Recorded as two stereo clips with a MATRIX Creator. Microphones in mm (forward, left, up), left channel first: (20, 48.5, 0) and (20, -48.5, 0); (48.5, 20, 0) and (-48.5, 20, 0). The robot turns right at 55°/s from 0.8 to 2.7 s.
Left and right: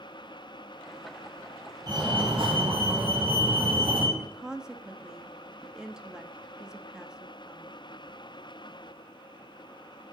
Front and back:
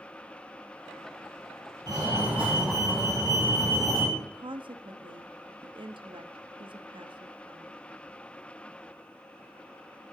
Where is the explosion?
No explosion in this recording.